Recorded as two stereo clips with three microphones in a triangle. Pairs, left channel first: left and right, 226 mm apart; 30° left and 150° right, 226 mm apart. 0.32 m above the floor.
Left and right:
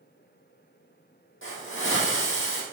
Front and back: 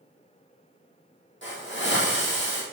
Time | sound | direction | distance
1.4 | a hiss | 65° left | 4 m